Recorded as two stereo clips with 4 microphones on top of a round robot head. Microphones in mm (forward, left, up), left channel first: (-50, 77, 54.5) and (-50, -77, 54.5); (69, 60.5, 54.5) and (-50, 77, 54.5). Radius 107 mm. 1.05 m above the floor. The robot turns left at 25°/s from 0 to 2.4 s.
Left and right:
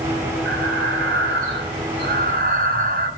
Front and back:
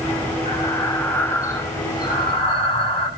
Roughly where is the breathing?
Ahead right.